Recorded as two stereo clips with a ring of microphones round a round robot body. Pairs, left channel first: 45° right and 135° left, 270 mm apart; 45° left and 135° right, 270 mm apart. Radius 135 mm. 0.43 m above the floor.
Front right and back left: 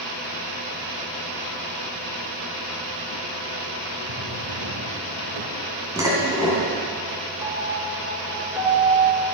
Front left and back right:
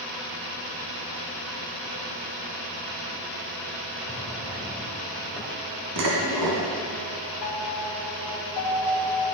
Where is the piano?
55° left, 2 m.